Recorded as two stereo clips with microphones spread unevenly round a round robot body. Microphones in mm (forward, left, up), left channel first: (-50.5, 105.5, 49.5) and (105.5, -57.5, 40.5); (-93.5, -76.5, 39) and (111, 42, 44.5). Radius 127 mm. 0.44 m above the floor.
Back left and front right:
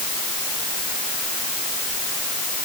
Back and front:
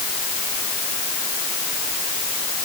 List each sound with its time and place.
Only background noise.